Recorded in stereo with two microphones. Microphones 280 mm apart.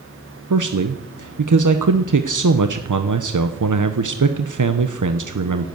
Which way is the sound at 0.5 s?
85° right.